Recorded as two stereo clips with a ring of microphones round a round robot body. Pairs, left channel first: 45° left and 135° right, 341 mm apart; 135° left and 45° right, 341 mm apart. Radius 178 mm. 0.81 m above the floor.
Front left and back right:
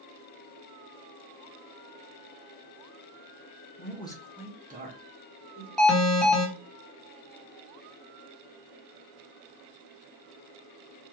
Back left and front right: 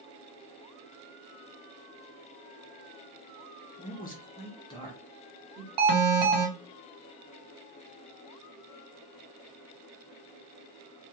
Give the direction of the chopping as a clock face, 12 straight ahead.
No chopping in this recording.